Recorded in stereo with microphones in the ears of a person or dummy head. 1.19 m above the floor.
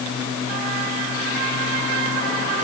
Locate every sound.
Only background noise.